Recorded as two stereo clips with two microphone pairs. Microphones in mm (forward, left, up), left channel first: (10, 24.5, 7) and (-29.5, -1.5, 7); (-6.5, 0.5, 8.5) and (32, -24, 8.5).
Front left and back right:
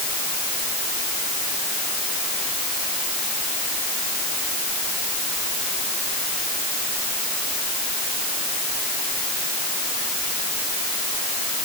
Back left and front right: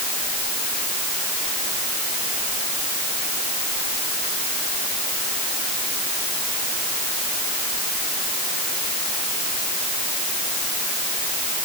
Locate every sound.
Only background noise.